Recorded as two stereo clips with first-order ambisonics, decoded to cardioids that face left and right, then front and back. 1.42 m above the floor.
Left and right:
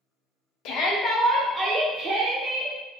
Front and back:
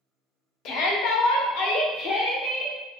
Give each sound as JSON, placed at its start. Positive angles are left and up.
{"t": 0.7, "sound": "a shout", "azimuth_deg": 50, "distance_m": 0.6}